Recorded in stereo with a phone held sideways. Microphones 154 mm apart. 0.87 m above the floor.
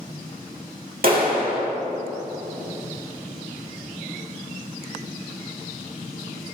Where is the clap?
70° right (ahead or behind), 1.8 m.